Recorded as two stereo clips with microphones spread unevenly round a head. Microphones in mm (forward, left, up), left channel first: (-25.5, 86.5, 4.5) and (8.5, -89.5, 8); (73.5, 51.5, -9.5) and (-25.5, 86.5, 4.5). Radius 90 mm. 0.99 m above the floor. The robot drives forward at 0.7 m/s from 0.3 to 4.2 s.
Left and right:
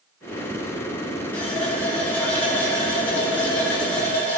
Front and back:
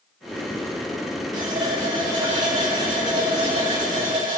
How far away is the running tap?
About 5.5 m.